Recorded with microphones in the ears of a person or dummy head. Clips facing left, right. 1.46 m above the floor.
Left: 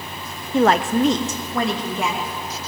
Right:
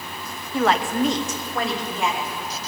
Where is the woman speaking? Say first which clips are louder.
Left 4 dB; 10° left (ahead or behind), 0.5 m; by 2.3 s 70° left (ahead or behind), 3 m.